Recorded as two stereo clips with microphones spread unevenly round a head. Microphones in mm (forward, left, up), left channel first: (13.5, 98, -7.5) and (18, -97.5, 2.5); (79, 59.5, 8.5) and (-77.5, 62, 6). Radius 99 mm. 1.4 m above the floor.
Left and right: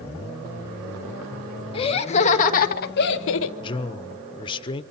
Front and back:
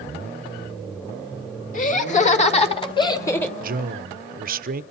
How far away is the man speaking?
About 1.2 m.